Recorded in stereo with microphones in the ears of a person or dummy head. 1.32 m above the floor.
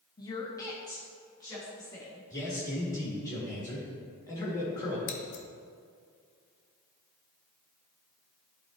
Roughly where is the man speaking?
Left.